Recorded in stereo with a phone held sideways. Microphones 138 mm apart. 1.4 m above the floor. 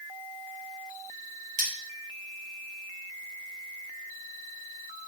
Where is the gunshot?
No gunshot in this recording.